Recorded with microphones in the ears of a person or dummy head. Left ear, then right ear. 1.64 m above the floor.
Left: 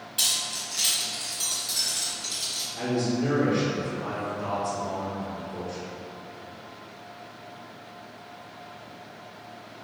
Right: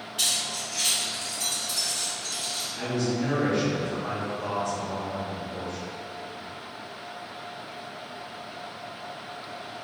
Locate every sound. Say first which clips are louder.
0.2 s keys jangling: even; 30° left (ahead or behind), 1.2 m; by 2.7 s 50° left (ahead or behind), 2.5 m
2.8 s a man speaking: left 2 dB; 55° left (ahead or behind), 2.0 m